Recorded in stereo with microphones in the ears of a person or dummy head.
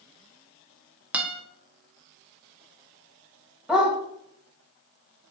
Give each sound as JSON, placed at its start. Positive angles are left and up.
{"t": 1.1, "sound": "a guitar", "side_deg": -10, "distance_m": 1.5}
{"t": 3.7, "sound": "a dog barking", "side_deg": -5, "distance_m": 2.5}